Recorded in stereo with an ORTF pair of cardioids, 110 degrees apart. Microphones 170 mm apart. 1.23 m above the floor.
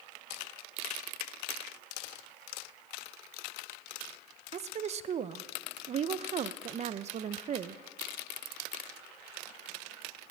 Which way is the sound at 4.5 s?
40° right.